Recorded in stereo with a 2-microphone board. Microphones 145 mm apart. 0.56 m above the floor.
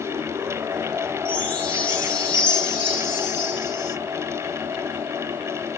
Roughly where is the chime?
Centre.